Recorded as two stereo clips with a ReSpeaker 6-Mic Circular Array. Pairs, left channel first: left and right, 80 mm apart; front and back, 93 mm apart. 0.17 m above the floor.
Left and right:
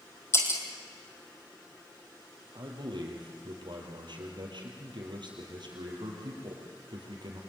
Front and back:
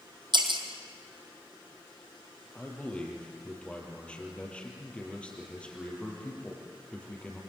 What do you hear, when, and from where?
0.3 s breaking glass: 145° left, 3 m
2.5 s a man speaking: 80° right, 5.5 m